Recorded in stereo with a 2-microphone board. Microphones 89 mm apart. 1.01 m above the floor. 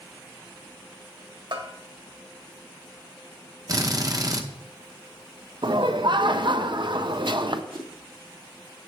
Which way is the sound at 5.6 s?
60° right (ahead or behind).